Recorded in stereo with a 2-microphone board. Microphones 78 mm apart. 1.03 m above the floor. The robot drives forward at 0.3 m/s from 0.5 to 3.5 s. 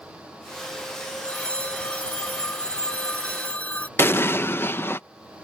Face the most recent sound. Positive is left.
turn(degrees=30)  # may be behind; listen again after turning